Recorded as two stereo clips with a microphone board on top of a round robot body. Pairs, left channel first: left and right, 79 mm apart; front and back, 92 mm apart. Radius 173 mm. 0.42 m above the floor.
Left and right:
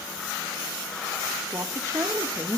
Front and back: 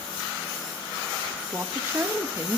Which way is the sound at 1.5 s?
125° right.